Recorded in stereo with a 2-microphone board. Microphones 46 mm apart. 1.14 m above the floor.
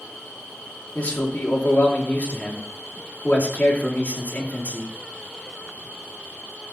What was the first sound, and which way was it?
A man speaking, 30° left (ahead or behind).